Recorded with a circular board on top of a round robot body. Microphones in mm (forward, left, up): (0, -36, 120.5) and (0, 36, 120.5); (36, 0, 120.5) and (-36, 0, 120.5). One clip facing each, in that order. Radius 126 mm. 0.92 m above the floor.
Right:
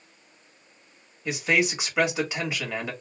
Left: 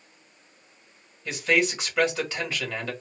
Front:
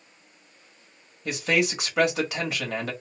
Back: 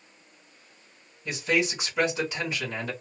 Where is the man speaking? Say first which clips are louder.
Even, front 2 dB; 15° right, 1.6 m.